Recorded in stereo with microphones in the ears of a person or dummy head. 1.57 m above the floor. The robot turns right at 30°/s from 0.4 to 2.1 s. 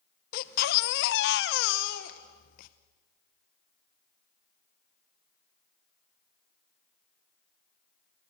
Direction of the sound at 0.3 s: 70° left.